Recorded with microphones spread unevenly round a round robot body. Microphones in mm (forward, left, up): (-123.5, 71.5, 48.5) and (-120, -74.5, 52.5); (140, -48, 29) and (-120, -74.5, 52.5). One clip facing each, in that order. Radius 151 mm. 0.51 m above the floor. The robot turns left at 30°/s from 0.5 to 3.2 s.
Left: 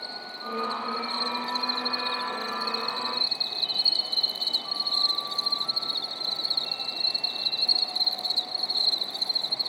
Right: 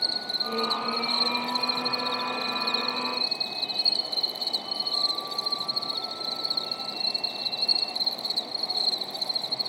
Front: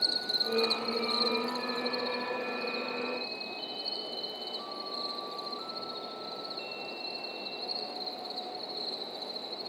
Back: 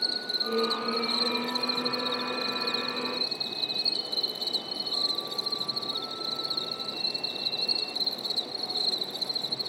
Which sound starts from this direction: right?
An insect, at 0.0 s.